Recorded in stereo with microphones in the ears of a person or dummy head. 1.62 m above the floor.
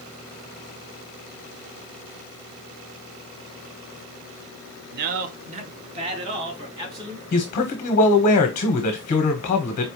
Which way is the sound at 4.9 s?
60° right (ahead or behind).